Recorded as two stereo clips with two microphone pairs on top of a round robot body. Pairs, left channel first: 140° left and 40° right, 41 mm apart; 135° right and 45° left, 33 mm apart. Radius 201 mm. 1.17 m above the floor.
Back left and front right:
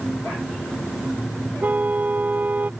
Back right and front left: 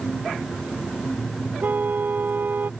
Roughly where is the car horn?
Ahead.